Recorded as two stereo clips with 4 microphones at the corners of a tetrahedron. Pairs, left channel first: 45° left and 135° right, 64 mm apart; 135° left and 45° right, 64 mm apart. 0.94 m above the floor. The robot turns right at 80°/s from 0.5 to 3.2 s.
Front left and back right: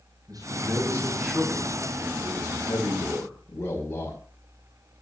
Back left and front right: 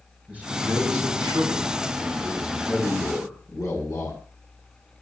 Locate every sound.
0.3 s a man speaking: 115° right, 8 m; by 4.2 s 105° left, 8 m